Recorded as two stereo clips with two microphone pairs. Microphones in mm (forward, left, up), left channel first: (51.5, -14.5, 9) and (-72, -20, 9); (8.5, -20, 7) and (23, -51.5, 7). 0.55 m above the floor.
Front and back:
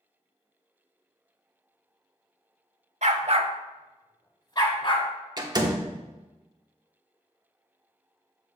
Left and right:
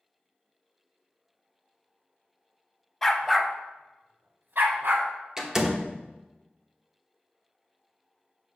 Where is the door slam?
135° right, 1.0 m.